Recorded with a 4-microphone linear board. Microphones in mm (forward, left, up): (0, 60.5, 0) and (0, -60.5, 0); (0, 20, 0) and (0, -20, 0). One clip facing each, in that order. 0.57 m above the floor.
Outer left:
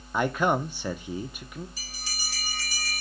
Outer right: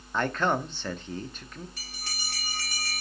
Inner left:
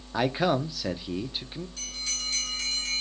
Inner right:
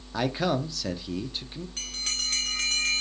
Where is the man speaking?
10° left (ahead or behind), 0.6 m.